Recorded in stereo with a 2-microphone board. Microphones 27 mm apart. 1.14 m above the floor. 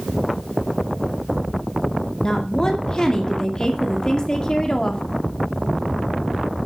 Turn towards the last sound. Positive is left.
turn(degrees=30)  # may be behind; listen again after turning